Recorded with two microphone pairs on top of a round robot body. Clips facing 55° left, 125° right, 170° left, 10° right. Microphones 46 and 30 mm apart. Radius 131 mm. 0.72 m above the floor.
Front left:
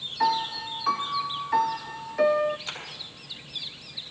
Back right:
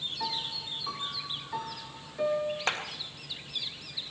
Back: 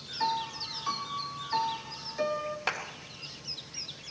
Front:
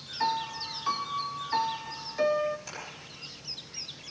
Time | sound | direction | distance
0.2 | a piano | 65° left | 0.5 m
2.7 | a clap | 155° right | 3 m